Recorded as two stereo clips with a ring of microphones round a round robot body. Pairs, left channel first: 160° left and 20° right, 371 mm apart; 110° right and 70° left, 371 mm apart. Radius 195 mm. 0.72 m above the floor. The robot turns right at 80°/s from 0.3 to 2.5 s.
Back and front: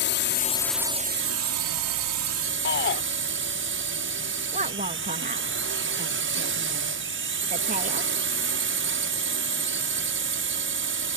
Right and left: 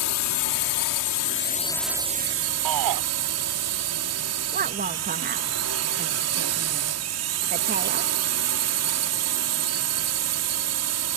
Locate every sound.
0.0 s a drone: 145° right; by 11.2 s 30° left
2.6 s a shout: 95° left
4.5 s a woman speaking: 25° left